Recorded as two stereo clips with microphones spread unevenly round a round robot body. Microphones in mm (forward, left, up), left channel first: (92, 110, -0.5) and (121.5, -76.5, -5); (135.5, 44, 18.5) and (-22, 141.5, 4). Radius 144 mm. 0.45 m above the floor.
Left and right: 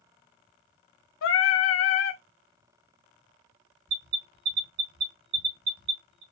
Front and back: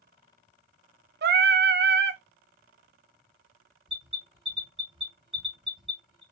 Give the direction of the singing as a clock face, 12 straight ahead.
8 o'clock.